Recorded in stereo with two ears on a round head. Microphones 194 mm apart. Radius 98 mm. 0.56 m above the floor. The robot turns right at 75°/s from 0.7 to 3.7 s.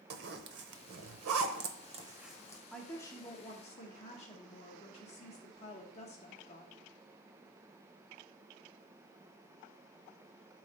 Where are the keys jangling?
No keys jangling in this recording.